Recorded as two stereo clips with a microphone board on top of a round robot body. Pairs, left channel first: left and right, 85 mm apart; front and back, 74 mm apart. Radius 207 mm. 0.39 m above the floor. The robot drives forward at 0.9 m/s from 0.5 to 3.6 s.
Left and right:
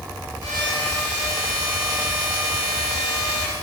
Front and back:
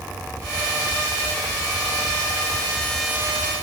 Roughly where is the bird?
No bird in this recording.